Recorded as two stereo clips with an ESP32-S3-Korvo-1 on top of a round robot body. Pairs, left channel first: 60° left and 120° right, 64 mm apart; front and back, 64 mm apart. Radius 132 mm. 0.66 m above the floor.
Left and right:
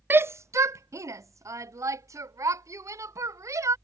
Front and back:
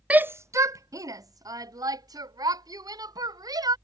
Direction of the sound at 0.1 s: 125° right.